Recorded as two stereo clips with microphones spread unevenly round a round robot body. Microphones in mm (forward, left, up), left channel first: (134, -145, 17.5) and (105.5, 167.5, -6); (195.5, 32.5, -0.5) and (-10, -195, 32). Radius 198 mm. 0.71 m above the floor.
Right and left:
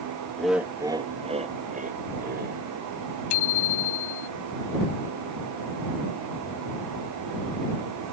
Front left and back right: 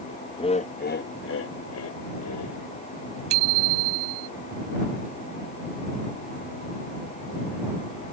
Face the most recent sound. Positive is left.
turn(degrees=-115)